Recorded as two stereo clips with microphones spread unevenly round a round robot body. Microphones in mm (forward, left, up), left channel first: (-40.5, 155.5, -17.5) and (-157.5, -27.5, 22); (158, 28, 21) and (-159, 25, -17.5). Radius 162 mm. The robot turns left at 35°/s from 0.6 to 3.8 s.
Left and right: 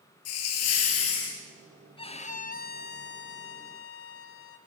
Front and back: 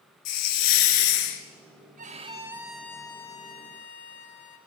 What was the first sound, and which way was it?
A hiss, 30° left.